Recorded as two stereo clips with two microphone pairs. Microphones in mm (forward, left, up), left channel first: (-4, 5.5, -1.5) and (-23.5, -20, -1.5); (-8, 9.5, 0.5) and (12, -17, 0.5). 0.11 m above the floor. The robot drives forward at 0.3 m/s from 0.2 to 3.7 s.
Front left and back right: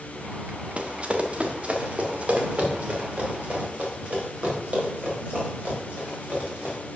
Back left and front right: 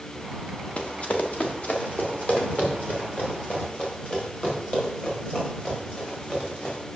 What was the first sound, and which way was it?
Running footsteps, straight behind.